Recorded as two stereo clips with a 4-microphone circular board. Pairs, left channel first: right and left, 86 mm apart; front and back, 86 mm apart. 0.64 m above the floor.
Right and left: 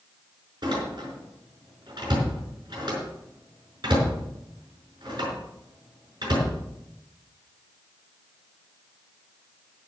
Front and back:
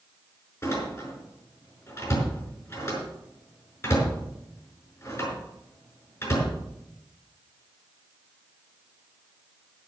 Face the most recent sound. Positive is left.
turn(degrees=55)